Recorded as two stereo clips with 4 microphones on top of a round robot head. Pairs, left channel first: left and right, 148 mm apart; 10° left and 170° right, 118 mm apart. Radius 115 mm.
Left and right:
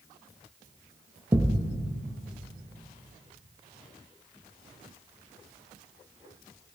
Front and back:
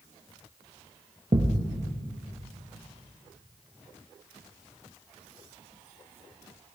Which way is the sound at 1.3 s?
150° right.